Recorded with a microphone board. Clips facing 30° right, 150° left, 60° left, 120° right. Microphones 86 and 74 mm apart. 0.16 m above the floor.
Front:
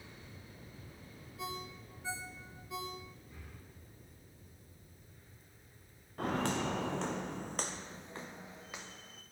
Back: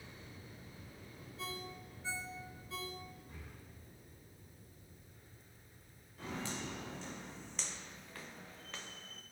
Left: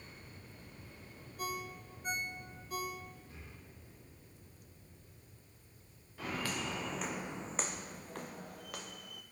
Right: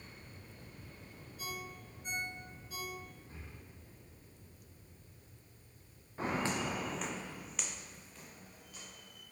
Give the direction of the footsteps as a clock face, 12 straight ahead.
2 o'clock.